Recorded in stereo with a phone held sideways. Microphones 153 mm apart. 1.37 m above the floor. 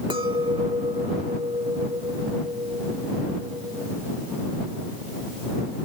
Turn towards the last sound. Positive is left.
turn(degrees=-30)  # may be behind; listen again after turning